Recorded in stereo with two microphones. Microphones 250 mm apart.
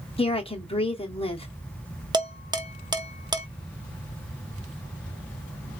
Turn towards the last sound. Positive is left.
turn(degrees=-15)  # may be behind; listen again after turning